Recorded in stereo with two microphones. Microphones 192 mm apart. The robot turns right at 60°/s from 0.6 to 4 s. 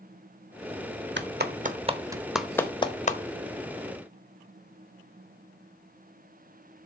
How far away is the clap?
About 0.7 m.